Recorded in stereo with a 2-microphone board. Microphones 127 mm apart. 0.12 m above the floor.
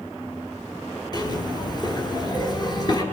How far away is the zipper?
About 2 m.